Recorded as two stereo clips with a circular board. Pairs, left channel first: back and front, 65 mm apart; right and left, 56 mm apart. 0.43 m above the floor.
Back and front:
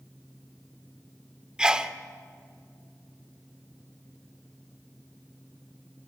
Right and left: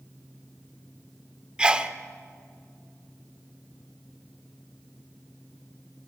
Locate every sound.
1.6 s a sneeze: 50° left, 0.9 m